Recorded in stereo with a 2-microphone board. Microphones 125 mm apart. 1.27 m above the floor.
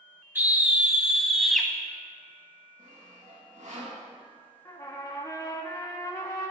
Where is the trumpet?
30° left (ahead or behind), 1.4 m.